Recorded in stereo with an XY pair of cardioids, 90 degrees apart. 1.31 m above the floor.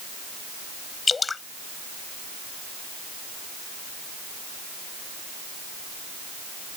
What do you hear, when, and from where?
1.1 s dripping: 35° left